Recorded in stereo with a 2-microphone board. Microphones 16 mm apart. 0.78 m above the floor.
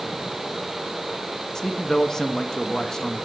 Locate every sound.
1.6 s a man speaking: 25° left (ahead or behind), 1.0 m